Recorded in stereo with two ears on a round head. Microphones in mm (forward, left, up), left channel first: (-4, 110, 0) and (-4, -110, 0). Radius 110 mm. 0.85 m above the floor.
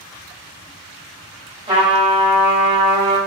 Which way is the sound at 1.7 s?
20° right (ahead or behind).